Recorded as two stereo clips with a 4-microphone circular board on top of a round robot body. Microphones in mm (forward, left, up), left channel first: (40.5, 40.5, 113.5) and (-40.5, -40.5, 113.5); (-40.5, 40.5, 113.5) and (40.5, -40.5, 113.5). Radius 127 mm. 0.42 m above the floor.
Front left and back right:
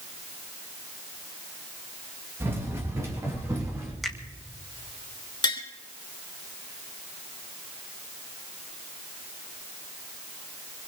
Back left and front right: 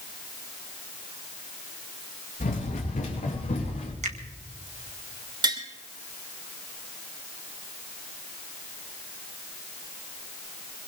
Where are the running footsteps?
155° left, 4.5 m; by 3.9 s 160° left, 5.5 m.